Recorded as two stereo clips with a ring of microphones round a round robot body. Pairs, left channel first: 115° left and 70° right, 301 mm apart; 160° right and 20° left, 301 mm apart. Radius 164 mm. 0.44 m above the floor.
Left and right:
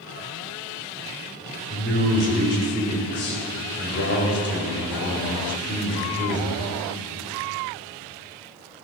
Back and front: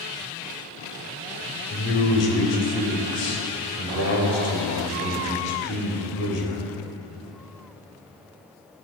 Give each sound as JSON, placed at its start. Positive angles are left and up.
{"t": 1.7, "sound": "a man speaking", "azimuth_deg": 160, "distance_m": 2.0}